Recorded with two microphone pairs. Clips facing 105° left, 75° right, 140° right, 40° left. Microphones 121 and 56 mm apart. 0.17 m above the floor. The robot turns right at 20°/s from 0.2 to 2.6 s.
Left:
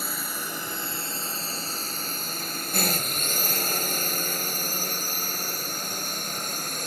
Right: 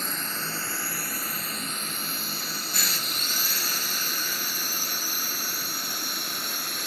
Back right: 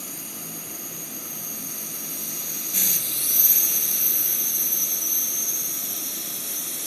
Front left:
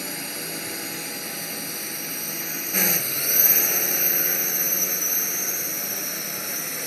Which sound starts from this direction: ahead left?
A drone, at 0.0 s.